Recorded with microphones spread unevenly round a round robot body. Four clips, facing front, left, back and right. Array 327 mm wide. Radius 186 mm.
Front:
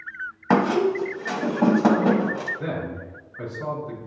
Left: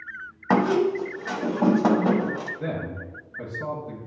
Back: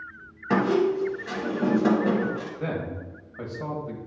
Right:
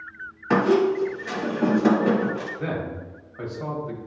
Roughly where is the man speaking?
Behind left.